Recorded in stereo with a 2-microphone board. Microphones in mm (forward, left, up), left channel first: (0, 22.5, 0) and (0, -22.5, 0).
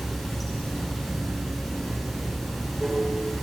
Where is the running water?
Centre (ahead or behind), 5.5 m.